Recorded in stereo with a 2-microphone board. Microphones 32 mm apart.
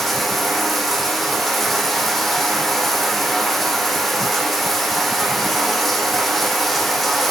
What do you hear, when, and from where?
0.0 s running water: 5° left (ahead or behind), 3.5 m